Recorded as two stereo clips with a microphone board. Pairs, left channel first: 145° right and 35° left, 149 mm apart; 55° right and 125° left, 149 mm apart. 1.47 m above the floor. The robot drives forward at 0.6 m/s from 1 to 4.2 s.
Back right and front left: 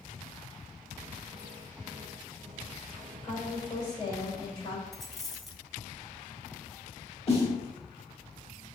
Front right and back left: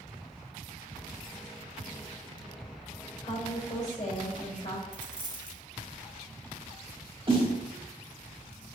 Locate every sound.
3.2 s a woman speaking: 85° right, 3 m; by 4.8 s 95° right, 3 m
4.9 s a dropped coin: 130° left, 1.2 m
7.3 s a snare drum: 175° left, 1.9 m